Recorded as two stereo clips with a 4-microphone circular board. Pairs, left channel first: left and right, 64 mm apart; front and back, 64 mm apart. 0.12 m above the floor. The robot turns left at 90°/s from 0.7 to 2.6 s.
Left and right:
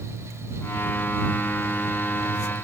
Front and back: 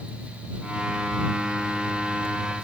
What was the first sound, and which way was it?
Only background noise.